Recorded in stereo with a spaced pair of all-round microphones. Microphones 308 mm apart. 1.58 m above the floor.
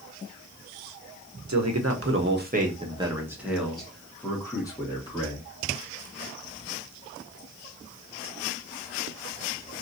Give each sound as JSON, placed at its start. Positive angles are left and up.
{"t": 1.5, "sound": "a man speaking", "side_deg": -60, "distance_m": 0.8}